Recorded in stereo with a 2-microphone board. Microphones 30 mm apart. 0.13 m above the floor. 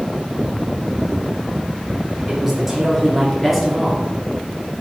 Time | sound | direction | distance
2.3 | a man speaking | 15° right (ahead or behind) | 2.5 m